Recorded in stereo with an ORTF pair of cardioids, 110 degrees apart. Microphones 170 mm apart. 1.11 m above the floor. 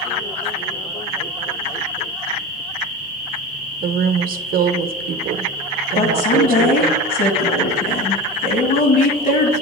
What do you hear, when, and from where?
3.8 s a woman speaking: 60° right, 0.7 m
6.0 s a woman speaking: 60° left, 1.9 m